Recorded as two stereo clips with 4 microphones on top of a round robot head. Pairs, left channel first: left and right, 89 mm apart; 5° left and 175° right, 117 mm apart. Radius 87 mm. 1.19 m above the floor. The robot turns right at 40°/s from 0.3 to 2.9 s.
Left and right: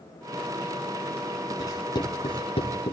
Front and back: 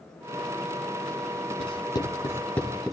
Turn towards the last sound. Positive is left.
turn(degrees=95)